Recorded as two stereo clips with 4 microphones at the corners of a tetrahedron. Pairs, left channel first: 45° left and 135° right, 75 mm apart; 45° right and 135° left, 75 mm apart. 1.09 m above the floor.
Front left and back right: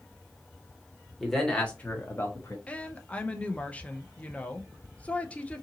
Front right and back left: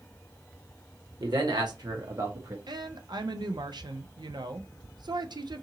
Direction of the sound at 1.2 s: 135° left.